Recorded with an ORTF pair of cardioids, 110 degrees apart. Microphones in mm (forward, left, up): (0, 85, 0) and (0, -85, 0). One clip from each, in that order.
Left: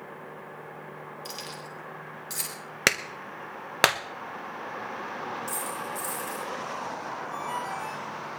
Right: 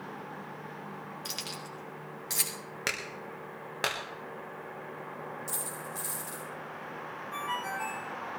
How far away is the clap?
About 1.4 m.